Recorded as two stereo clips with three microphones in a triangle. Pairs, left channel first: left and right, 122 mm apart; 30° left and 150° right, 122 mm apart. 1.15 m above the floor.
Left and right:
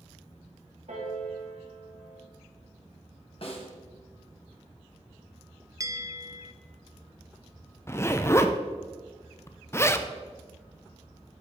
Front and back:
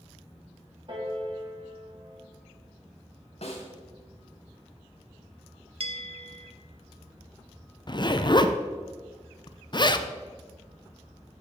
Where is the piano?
105° right, 3 m.